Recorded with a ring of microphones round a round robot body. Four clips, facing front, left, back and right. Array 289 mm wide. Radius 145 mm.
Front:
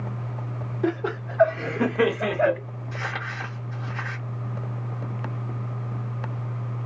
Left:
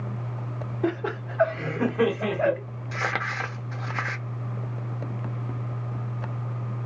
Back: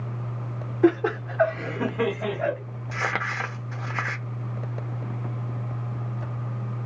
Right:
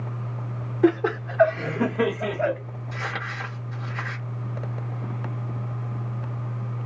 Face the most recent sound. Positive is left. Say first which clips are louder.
# left 4 dB, back 4 dB
turn(degrees=140)